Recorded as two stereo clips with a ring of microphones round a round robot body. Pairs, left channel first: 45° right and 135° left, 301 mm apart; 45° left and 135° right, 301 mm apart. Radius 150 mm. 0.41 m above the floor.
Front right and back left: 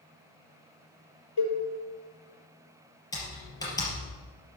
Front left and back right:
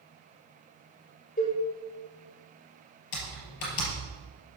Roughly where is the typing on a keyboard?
Ahead left.